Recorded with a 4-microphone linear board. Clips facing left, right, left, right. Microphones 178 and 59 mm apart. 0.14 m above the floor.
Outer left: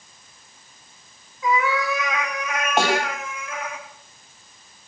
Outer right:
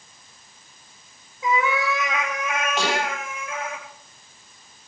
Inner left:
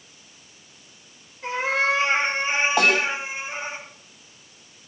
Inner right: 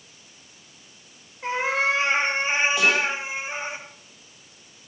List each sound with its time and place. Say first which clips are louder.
1.4 s a cat meowing: outer left 1 dB, even; 20° right (ahead or behind), 7 m; by 3.8 s 25° right (ahead or behind), 8 m
2.8 s a snare drum: outer left 6 dB, inner left 4 dB; 50° left (ahead or behind), 4.5 m